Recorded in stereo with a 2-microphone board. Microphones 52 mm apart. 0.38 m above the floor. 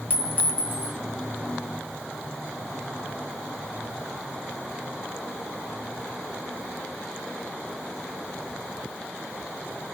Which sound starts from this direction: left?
A clink, at 0.1 s.